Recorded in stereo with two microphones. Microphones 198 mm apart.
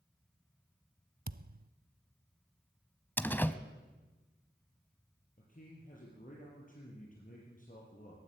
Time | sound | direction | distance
1.3 | a thud | 50° right (ahead or behind) | 0.5 m
3.2 | a door slam | 10° left (ahead or behind) | 0.9 m
5.4 | a man speaking | 45° left (ahead or behind) | 5.5 m